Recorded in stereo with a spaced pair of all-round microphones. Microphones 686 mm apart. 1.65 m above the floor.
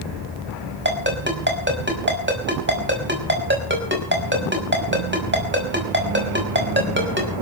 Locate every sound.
0.8 s a ringtone: 15° right (ahead or behind), 5.5 m